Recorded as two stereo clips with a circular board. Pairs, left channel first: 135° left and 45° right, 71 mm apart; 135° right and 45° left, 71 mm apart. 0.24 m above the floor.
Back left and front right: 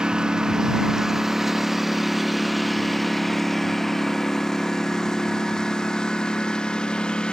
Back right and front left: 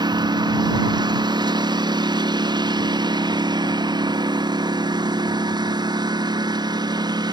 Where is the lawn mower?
35° left; by 7.3 s 60° left.